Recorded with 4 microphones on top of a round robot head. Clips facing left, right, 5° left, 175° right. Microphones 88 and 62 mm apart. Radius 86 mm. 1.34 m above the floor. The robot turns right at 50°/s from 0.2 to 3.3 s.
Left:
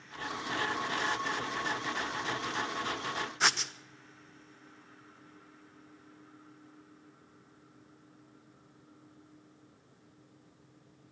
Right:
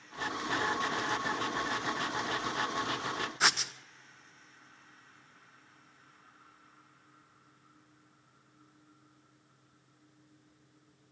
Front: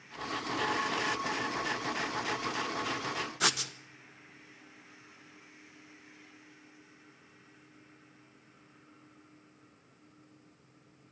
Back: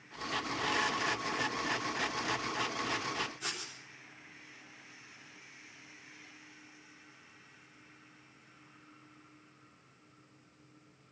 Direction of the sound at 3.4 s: Straight ahead.